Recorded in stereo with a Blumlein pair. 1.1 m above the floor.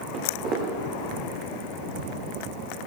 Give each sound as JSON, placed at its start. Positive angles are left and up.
{"t": 0.1, "sound": "footsteps", "azimuth_deg": -35, "distance_m": 6.5}